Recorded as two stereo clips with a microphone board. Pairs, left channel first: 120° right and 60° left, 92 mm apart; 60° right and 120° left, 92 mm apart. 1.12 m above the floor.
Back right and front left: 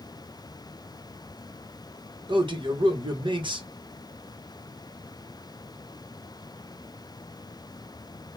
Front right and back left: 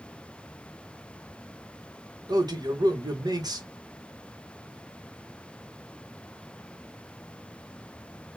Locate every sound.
2.3 s a man speaking: 80° left, 1.3 m